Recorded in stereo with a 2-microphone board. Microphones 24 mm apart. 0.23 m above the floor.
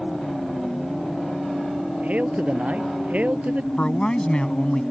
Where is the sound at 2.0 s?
75° right (ahead or behind).